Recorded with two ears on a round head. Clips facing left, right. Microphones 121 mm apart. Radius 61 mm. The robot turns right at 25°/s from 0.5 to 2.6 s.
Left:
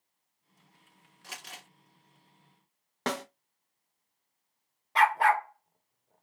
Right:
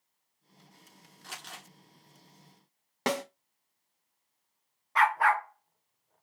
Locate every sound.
1.2 s crumpling: centre (ahead or behind), 1.9 m; by 1.6 s 10° left (ahead or behind), 1.9 m
3.1 s a snare drum: 10° right (ahead or behind), 1.1 m
5.0 s a dog barking: 30° left (ahead or behind), 0.7 m